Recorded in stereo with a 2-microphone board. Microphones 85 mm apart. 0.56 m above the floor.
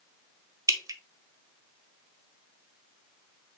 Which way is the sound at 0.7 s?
40° right (ahead or behind).